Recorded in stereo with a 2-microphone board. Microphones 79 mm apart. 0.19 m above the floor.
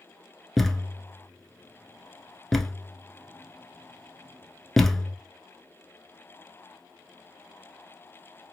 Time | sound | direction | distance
0.6 | a thud | 5° left (ahead or behind) | 0.7 m